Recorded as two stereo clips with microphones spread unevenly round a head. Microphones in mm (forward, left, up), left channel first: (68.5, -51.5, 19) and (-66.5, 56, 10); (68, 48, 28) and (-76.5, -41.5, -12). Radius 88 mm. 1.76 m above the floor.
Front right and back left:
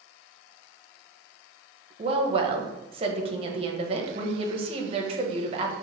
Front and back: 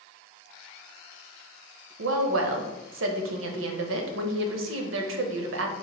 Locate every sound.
2.0 s a woman speaking: 160° right, 0.7 m